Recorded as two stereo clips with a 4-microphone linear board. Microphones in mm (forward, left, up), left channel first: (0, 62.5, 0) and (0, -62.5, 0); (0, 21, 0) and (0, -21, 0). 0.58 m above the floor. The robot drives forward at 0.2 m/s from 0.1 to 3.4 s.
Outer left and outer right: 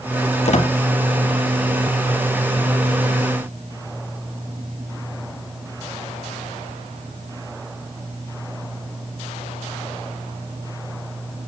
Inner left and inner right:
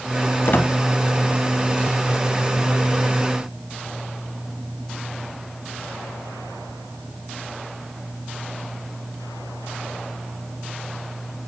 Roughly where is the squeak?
Left.